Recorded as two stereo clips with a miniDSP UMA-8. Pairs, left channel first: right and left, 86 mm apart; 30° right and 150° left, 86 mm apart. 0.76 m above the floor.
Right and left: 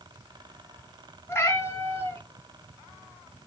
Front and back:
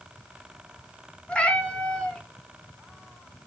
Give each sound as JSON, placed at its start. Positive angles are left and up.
{"t": 1.3, "sound": "a cat meowing", "azimuth_deg": -95, "distance_m": 0.5}